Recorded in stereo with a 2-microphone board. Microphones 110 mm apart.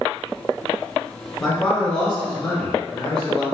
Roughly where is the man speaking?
Centre.